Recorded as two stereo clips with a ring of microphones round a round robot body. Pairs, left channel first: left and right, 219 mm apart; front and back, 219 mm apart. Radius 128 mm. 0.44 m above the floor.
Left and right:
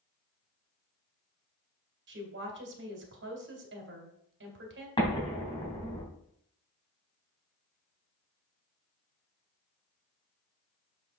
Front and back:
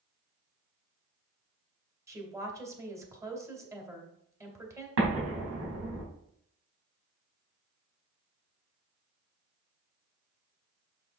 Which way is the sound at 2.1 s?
105° right.